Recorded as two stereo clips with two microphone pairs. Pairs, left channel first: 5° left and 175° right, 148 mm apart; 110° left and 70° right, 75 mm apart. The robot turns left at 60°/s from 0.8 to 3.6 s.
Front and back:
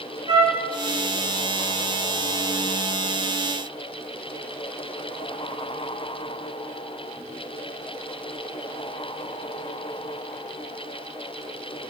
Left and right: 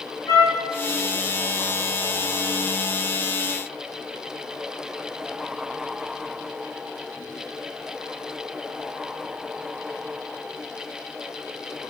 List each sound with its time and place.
0.3 s a trumpet: 135° left, 9 m